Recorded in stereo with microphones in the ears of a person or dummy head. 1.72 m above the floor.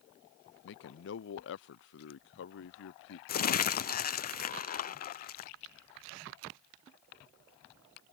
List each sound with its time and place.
0.6 s a man speaking: 65° left (ahead or behind)
3.3 s crumpling: 45° left (ahead or behind)